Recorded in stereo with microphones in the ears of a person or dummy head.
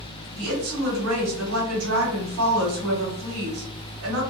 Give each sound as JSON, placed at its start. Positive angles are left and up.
{"t": 0.4, "sound": "a woman speaking", "side_deg": -80, "distance_m": 1.4}